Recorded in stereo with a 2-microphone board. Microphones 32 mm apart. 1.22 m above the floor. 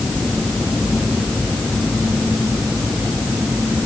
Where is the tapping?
No tapping in this recording.